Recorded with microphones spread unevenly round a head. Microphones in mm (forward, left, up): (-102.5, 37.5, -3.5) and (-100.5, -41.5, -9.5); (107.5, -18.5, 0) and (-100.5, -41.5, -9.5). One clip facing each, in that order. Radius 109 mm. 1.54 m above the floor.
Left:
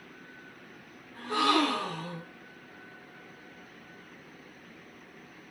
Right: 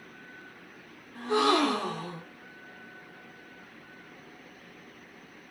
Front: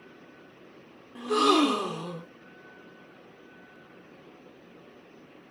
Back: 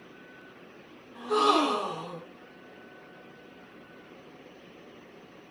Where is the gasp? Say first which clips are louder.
Right 2 dB, front 3 dB; 20° right, 0.5 m.